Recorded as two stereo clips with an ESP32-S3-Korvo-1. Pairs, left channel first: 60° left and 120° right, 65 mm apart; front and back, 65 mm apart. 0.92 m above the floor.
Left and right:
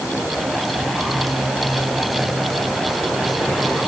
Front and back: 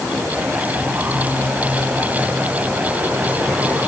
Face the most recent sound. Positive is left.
No sound to turn to.